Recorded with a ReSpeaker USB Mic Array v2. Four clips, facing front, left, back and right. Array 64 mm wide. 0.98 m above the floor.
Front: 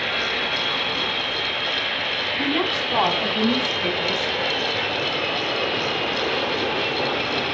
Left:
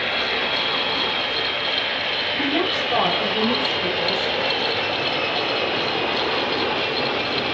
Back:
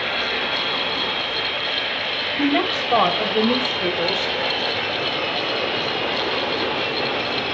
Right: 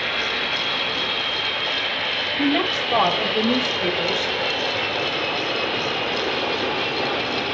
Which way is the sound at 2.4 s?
170° right.